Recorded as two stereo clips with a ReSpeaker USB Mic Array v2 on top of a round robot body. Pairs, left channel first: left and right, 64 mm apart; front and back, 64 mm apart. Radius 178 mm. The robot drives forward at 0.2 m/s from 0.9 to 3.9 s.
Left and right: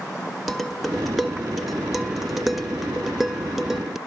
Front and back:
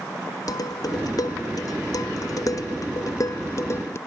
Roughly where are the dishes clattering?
Ahead.